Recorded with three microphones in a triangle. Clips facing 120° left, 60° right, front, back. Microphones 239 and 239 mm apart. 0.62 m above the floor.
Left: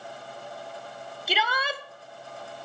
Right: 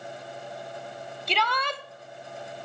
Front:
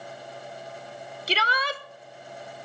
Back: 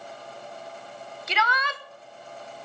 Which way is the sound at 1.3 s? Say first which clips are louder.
Even, front 2 dB; 40° left.